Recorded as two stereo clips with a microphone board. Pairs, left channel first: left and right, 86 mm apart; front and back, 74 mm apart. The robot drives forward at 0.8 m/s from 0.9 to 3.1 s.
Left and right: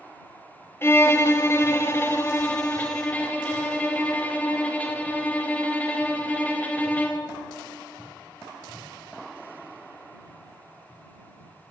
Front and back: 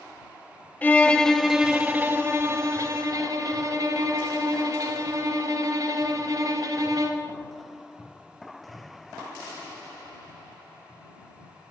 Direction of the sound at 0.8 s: 50° left.